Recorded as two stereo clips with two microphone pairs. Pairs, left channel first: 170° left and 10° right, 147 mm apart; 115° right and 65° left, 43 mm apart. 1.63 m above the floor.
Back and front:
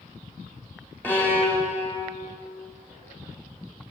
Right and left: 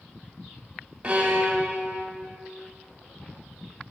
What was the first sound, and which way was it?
A violin, 110° left.